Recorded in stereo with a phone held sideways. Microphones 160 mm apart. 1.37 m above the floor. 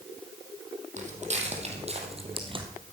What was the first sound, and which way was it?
Footsteps, 50° right (ahead or behind).